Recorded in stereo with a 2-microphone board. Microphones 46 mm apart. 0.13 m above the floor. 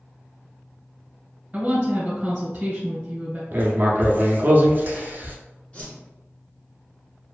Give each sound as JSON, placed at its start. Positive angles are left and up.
{"t": 1.5, "sound": "a woman speaking", "side_deg": -25, "distance_m": 1.2}
{"t": 3.5, "sound": "writing", "side_deg": -45, "distance_m": 0.5}
{"t": 5.7, "sound": "a whoosh", "side_deg": 30, "distance_m": 1.0}